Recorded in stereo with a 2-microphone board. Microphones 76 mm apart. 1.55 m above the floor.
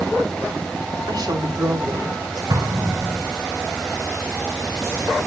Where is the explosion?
60° right (ahead or behind), 1.9 m.